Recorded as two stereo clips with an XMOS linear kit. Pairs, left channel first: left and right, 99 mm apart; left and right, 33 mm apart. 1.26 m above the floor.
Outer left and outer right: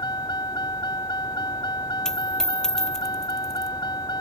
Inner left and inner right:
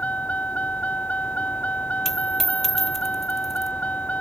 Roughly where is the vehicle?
Left.